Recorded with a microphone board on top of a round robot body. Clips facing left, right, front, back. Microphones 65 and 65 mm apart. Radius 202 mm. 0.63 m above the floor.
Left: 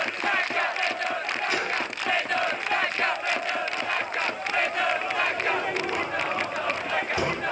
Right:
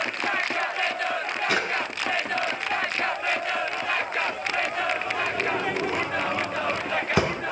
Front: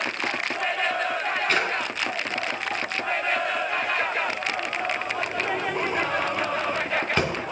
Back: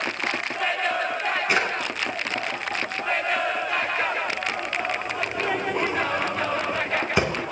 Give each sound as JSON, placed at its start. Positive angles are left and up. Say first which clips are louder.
{"t": 1.5, "sound": "a drawer", "louder": "right 2 dB, back 1 dB", "azimuth_deg": -105, "distance_m": 3.0}